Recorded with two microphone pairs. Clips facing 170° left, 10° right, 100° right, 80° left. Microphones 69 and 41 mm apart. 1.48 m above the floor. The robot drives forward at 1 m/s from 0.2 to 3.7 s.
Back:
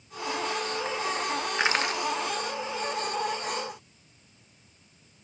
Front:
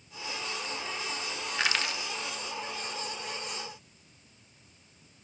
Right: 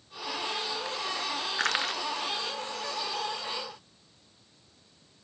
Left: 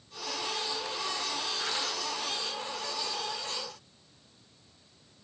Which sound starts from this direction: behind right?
Crushing, at 1.6 s.